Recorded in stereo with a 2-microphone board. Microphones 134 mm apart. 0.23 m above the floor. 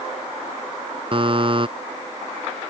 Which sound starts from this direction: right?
A buzzer, at 1.1 s.